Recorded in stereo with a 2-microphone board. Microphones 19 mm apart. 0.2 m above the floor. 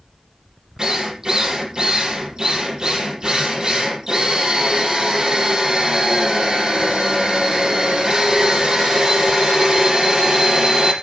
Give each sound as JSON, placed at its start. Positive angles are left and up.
{"t": 0.8, "sound": "a drill", "side_deg": -40, "distance_m": 5.0}